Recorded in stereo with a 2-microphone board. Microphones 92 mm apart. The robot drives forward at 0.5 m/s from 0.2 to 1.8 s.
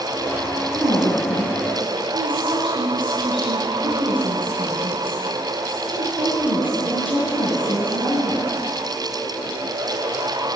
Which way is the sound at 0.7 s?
70° right (ahead or behind).